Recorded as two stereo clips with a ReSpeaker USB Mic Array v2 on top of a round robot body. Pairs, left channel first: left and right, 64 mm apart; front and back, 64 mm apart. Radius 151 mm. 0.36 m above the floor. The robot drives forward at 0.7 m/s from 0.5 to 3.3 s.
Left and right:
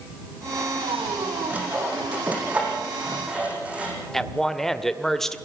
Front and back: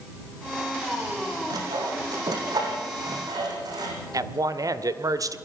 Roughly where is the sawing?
Behind right.